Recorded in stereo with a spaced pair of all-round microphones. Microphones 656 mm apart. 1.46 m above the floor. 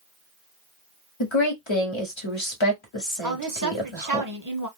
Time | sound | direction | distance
1.2 | a woman speaking | 45° left (ahead or behind) | 1.0 m
3.2 | a woman speaking | 30° right (ahead or behind) | 0.8 m